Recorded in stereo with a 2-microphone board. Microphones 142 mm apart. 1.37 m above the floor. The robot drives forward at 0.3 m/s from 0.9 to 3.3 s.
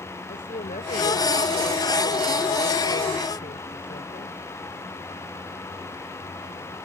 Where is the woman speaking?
85° left.